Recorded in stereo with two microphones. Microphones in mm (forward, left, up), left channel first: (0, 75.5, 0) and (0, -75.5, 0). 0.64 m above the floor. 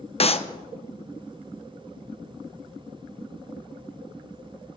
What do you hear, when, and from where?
0.2 s a clap: 40° left (ahead or behind), 0.5 m